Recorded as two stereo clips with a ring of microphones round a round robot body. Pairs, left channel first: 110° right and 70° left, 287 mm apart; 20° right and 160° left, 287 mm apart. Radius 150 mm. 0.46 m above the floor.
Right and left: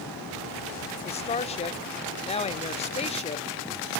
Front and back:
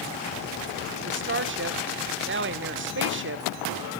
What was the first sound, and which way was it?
A woman speaking, 175° right.